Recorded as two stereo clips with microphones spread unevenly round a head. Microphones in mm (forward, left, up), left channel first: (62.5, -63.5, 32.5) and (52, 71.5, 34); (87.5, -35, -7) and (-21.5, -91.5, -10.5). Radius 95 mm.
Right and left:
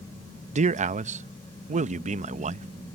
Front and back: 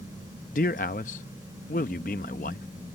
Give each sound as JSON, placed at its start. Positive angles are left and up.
{"t": 0.5, "sound": "a man speaking", "azimuth_deg": 65}